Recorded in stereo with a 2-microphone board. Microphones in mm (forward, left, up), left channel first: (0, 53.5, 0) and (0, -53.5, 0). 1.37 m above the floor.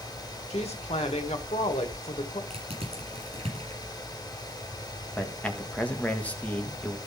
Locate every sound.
0.5 s a woman speaking: 80° left, 1.5 m
2.5 s crushing: 65° right (ahead or behind), 6.5 m
5.2 s a man speaking: 15° left (ahead or behind), 1.6 m